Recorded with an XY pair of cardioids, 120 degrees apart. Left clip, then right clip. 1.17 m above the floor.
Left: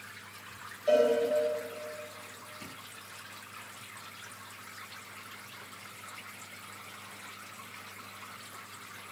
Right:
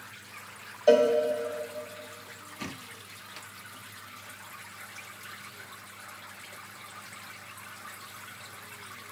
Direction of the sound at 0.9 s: 60° right.